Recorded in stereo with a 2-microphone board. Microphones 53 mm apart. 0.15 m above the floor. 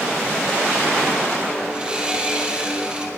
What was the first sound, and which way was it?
Sawing, 20° right (ahead or behind).